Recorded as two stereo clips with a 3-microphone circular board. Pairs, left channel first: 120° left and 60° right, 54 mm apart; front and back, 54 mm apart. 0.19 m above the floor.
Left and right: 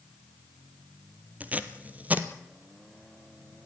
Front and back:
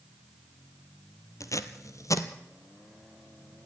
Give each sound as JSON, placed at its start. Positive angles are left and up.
{"t": 1.4, "sound": "tape being pulled", "azimuth_deg": 0, "distance_m": 1.2}